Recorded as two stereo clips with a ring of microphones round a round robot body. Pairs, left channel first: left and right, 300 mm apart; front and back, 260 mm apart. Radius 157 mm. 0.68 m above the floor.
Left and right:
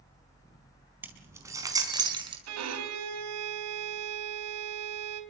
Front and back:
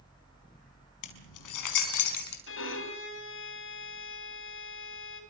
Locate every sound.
1.0 s keys jangling: 5° right, 4.5 m; by 2.4 s 15° right, 5.5 m
2.5 s a violin: 50° right, 4 m